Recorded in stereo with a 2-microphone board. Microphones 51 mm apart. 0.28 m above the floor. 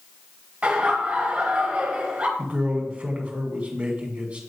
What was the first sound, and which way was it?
Laughter, 25° right (ahead or behind).